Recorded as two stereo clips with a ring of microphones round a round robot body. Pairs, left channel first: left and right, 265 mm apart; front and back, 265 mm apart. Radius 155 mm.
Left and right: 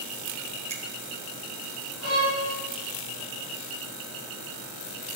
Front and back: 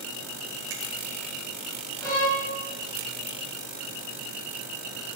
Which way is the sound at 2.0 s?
75° left.